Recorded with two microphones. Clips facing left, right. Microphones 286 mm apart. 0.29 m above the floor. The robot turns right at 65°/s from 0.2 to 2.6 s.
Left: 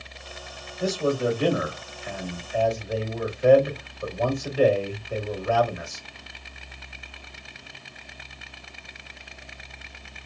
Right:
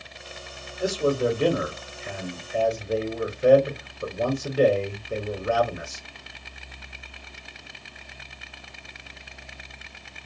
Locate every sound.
0.8 s a man speaking: 160° right, 1.1 m; by 6.0 s 40° right, 1.1 m